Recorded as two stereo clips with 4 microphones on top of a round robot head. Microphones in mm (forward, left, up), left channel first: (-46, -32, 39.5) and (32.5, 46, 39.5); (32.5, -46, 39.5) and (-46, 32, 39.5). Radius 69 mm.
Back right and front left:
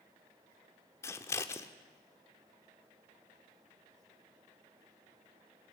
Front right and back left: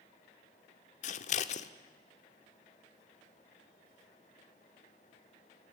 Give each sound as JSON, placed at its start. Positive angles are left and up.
{"t": 1.0, "sound": "scissors", "azimuth_deg": -65, "distance_m": 0.9}